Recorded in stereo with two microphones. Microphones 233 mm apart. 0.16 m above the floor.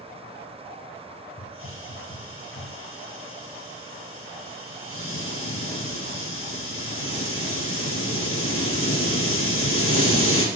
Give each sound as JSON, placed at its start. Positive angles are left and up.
{"t": 1.4, "sound": "a hiss", "side_deg": 70, "distance_m": 2.0}